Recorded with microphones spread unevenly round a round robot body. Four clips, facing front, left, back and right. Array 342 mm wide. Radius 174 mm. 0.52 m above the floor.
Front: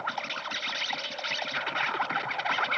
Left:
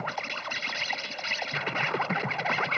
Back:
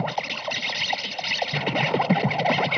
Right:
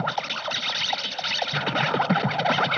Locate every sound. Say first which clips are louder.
0.0 s an insect: right 6 dB, back 6 dB; 150° right